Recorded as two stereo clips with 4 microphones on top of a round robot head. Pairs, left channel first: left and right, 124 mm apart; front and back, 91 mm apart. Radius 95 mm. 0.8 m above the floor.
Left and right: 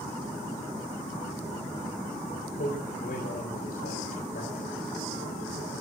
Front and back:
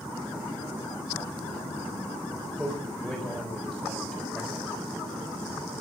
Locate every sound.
2.5 s a man speaking: 95° left, 4.5 m